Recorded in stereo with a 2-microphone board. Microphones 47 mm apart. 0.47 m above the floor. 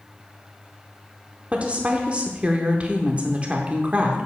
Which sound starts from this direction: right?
A woman speaking, at 1.5 s.